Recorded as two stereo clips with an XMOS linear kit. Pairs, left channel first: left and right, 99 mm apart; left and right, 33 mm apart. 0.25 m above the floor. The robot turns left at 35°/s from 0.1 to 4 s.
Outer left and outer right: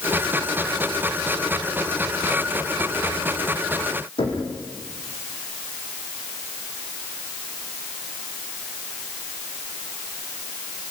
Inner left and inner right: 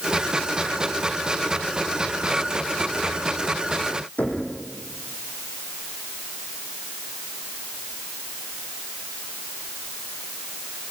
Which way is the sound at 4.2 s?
70° left (ahead or behind).